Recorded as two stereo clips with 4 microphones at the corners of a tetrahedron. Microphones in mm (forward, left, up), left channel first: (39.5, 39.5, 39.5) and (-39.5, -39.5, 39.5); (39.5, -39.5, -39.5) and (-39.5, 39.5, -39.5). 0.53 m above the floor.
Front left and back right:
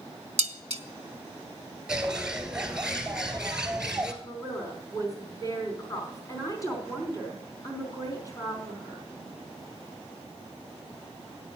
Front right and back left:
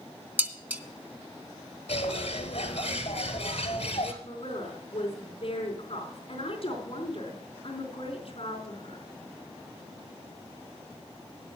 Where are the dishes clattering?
155° right, 0.8 m.